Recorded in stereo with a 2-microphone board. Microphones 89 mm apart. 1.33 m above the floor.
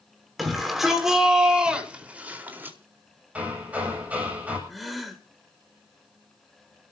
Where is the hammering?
15° right (ahead or behind), 7.5 m.